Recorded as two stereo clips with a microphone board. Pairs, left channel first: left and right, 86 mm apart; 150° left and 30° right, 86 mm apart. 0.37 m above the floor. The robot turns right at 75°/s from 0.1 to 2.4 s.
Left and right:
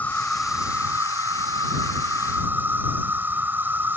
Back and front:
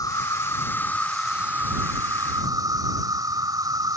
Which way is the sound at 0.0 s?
155° left.